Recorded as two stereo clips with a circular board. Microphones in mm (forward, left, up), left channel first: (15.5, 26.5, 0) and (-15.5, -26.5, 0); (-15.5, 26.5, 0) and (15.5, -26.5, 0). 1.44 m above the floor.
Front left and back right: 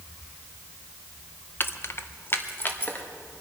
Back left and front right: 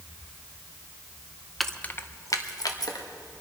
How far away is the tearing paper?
I don't hear tearing paper.